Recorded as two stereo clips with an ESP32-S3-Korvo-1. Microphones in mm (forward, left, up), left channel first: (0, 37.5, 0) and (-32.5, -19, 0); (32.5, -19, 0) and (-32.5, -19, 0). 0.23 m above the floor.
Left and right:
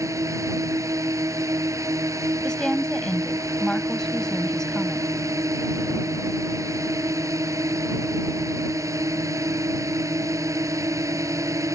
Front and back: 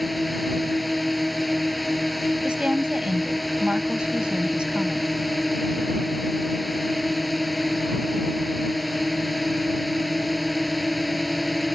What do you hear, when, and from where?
0.0 s a drone: 90° right
2.4 s a woman speaking: 130° left